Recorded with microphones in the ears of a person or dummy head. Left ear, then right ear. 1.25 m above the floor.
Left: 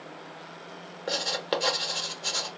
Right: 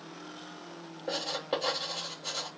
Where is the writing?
55° left (ahead or behind), 0.8 m.